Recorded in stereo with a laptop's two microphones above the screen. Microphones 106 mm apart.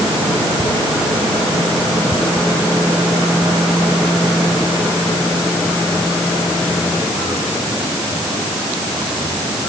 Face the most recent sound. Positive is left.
No sound to turn to.